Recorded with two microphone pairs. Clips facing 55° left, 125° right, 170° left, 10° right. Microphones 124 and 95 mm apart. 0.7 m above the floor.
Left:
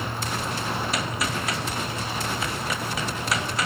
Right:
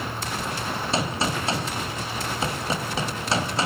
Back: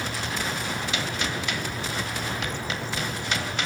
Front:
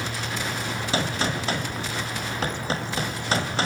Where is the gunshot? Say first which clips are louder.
Right 2 dB, front 3 dB; 65° right, 4 m.